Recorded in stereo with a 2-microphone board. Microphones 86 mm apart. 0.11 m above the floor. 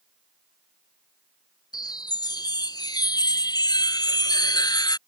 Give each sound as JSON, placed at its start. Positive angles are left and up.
{"t": 1.7, "sound": "a chime", "side_deg": 50}